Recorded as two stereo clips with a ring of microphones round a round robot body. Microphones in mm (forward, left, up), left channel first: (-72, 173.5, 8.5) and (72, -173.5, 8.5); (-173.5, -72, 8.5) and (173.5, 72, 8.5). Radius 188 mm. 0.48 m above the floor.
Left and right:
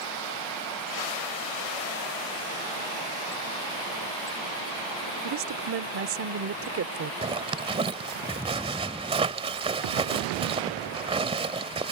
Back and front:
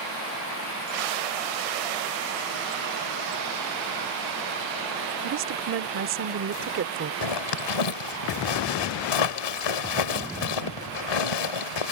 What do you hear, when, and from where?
5.2 s a woman speaking: 25° right
7.2 s a zipper: 145° right